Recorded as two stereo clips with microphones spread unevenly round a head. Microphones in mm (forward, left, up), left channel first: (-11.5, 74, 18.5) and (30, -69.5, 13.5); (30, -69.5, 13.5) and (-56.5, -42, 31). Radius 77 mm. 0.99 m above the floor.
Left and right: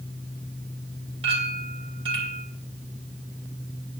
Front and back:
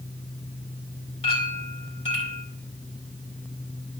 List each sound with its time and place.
1.2 s a clink: 20° right, 4 m